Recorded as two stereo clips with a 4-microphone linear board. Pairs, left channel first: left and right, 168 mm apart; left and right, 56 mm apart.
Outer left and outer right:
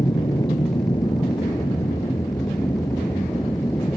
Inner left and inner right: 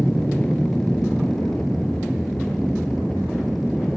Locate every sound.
0.0 s an aircraft: 25° left (ahead or behind); by 4.0 s 15° left (ahead or behind)